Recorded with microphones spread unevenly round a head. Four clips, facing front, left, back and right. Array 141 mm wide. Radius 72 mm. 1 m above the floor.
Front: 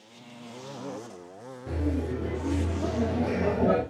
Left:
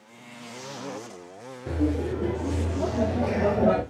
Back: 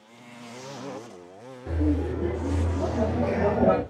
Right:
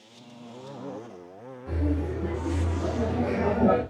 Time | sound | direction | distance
1.7 | laughter | 110° left | 3.5 m